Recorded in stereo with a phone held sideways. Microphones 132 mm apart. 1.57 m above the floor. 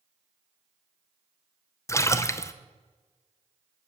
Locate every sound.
1.9 s a splash: 20° left (ahead or behind), 0.7 m